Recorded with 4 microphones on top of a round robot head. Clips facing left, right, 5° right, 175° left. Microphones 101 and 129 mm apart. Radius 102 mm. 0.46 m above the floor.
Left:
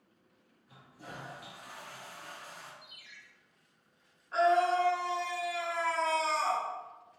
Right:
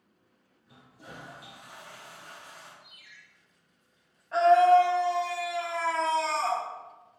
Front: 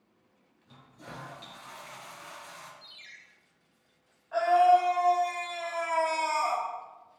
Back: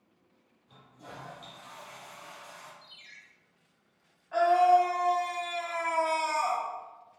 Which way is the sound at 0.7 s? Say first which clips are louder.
Even, front 1 dB; 15° right.